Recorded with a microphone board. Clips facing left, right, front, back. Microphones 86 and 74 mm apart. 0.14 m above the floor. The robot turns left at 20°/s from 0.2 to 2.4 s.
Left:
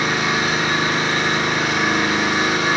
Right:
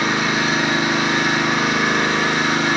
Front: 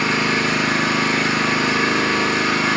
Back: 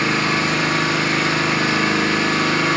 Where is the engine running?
150° right, 2.5 m; by 2.8 s 170° left, 2.5 m.